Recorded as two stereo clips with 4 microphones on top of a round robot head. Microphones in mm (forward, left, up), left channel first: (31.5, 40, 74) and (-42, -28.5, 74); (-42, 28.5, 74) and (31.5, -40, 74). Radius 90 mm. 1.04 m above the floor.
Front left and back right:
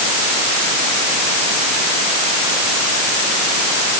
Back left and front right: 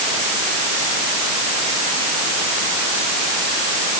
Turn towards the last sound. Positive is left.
No sound to turn to.